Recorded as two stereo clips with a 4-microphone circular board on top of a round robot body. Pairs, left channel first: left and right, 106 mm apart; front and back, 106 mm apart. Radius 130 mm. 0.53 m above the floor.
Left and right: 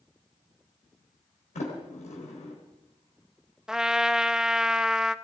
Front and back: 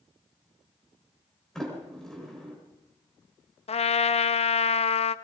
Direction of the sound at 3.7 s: 5° right.